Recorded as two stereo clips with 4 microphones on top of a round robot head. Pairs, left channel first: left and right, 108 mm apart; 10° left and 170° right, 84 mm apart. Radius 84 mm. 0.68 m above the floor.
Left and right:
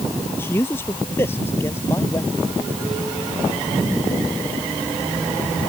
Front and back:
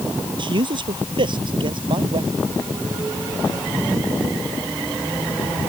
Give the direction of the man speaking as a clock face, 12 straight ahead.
7 o'clock.